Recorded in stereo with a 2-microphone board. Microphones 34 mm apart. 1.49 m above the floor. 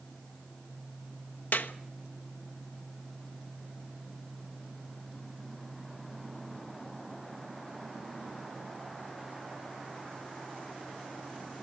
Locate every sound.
1.5 s a clap: 70° left (ahead or behind), 1.2 m